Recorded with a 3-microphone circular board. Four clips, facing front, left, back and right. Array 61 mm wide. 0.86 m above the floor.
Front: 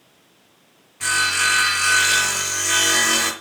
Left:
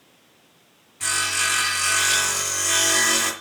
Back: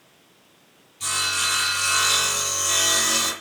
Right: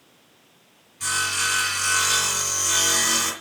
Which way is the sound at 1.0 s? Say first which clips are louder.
Left 1 dB, front 7 dB; 15° left.